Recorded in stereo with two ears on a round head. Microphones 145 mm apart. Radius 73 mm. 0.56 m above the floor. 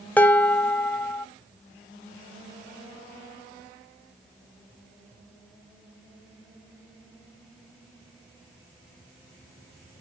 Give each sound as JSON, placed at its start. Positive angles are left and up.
{"t": 0.2, "sound": "dishes clattering", "side_deg": 10, "distance_m": 1.0}